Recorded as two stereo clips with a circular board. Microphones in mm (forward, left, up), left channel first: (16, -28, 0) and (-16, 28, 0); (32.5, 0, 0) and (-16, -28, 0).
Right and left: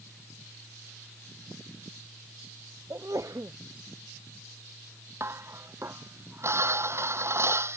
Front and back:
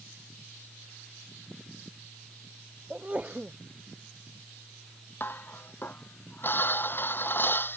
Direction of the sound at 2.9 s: 150° left.